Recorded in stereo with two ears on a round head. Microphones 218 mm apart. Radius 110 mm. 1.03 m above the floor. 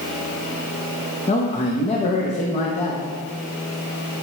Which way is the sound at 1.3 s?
30° left (ahead or behind).